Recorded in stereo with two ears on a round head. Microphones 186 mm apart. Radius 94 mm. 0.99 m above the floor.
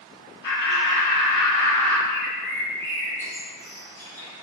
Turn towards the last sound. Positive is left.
turn(degrees=10)  # may be behind; listen again after turning